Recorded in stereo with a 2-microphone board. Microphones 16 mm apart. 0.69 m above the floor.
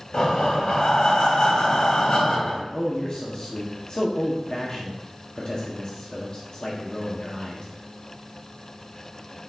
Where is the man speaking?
40° left (ahead or behind), 1.2 m.